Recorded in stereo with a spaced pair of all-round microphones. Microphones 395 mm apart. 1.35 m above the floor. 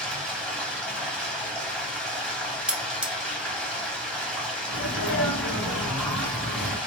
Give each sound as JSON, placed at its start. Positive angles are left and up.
{"t": 0.0, "sound": "running water", "side_deg": 5, "distance_m": 1.1}
{"t": 2.7, "sound": "cutlery clinking", "side_deg": -5, "distance_m": 0.6}
{"t": 4.7, "sound": "a sneeze", "side_deg": 60, "distance_m": 2.0}